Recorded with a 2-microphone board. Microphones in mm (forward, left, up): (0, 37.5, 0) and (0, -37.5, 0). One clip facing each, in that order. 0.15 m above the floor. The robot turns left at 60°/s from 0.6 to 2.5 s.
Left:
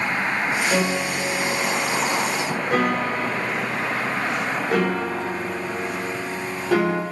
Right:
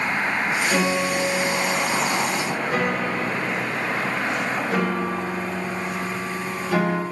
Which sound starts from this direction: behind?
A piano, at 0.7 s.